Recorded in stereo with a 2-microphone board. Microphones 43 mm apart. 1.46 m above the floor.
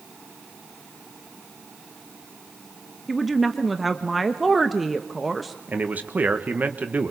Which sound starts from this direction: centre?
A woman speaking, at 3.1 s.